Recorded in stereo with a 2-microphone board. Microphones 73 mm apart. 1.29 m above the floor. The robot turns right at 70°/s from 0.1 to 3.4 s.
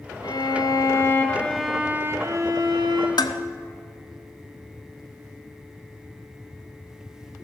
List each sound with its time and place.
0.2 s a violin: 85° left, 2.5 m; by 3.1 s 75° right, 2.5 m
3.2 s dishes clattering: 70° left (ahead or behind), 1.5 m; by 3.4 s 65° left (ahead or behind), 1.5 m